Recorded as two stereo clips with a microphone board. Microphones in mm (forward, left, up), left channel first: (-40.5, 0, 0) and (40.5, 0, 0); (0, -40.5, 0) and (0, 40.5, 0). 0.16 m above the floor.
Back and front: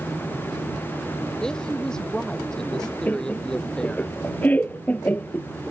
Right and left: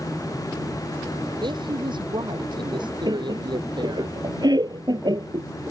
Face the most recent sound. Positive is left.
turn(degrees=110)